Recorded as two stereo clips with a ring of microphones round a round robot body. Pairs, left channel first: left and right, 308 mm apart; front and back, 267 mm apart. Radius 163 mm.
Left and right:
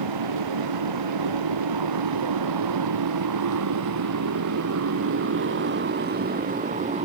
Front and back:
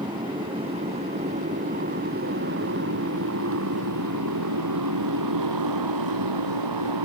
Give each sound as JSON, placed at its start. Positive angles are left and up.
{"t": 0.0, "sound": "a motorcycle", "azimuth_deg": -100}